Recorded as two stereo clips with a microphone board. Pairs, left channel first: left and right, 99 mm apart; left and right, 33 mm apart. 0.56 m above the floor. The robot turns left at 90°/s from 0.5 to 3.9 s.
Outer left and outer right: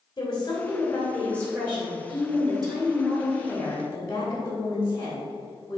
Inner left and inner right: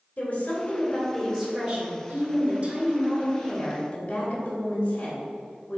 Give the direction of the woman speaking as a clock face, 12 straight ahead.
9 o'clock.